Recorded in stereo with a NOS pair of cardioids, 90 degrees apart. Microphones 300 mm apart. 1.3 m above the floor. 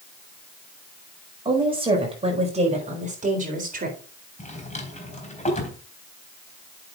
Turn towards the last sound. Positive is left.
turn(degrees=25)